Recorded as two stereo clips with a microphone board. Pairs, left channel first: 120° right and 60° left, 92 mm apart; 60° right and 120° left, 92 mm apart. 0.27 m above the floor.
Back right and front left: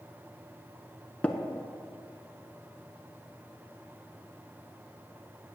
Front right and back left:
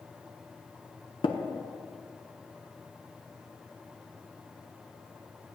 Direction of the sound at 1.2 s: 45° right.